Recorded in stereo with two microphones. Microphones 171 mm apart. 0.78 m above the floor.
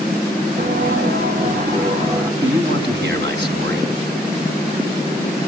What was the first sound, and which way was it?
Footsteps, 65° right (ahead or behind).